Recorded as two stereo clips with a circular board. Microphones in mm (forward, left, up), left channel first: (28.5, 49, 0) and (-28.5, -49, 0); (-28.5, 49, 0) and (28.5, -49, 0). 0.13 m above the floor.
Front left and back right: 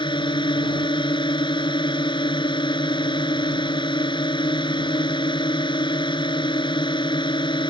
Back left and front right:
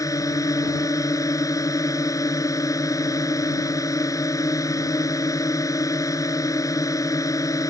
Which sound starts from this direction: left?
A drone, at 0.0 s.